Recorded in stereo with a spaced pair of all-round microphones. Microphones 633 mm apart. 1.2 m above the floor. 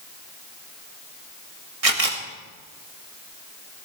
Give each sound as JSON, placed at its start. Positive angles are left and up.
{"t": 1.8, "sound": "a camera shutter", "side_deg": -60, "distance_m": 1.6}